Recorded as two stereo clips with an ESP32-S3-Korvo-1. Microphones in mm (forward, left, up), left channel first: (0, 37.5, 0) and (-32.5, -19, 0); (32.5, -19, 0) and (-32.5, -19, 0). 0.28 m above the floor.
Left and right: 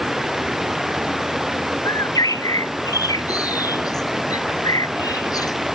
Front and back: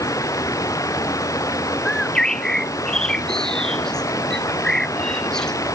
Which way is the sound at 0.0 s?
35° right.